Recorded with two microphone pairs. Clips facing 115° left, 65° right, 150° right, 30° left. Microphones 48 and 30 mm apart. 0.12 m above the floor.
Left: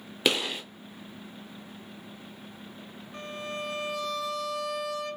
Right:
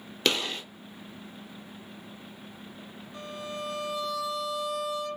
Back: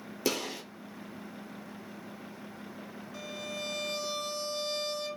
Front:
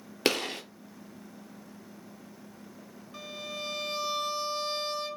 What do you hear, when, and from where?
0.2 s a gunshot: 35° left, 0.8 m
3.1 s a violin: 95° left, 0.6 m